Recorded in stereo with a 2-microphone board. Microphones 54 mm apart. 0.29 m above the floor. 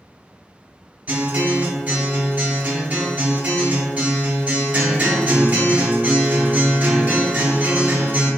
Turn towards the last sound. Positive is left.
turn(degrees=-30)  # may be behind; listen again after turning